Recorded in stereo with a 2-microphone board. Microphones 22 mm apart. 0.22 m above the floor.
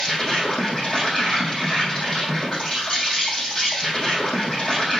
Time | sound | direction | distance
0.0 | an insect | 20° left (ahead or behind) | 3.5 m